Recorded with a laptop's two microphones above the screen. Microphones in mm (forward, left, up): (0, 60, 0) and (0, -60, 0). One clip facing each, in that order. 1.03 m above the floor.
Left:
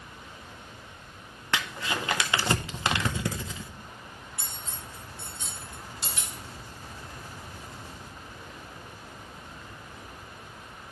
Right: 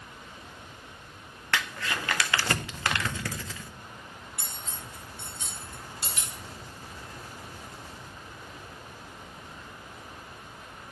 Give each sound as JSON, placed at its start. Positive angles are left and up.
{"t": 1.5, "sound": "crumpling", "side_deg": 20, "distance_m": 0.6}
{"t": 4.4, "sound": "cutlery clinking", "side_deg": -65, "distance_m": 1.7}